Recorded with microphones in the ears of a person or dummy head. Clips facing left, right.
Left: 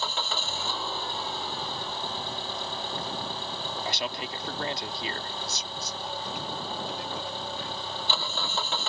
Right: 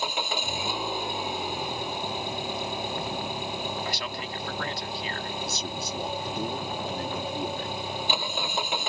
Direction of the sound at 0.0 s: 15° right (ahead or behind).